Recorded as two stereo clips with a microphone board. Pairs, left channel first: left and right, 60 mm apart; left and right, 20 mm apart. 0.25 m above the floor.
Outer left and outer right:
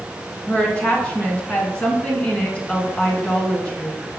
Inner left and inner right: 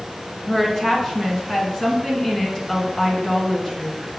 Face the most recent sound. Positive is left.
turn(degrees=20)  # may be behind; listen again after turning